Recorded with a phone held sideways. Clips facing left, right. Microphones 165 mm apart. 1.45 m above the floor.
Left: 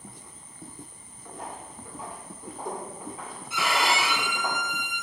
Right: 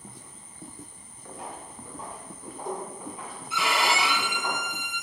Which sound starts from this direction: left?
A violin, at 3.5 s.